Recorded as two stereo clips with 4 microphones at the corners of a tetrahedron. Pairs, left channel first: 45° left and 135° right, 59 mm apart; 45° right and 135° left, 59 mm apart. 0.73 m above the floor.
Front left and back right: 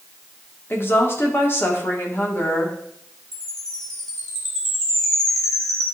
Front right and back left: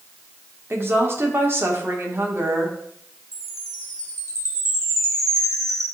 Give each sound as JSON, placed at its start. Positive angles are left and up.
{"t": 0.7, "sound": "a woman speaking", "azimuth_deg": 90, "distance_m": 1.7}
{"t": 3.3, "sound": "a chime", "azimuth_deg": 125, "distance_m": 2.0}